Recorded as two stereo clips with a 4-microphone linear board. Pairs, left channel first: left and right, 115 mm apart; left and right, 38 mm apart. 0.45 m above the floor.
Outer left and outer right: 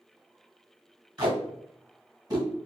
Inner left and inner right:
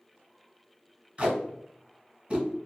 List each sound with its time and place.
1.2 s tape being pulled: 40° right (ahead or behind), 1.1 m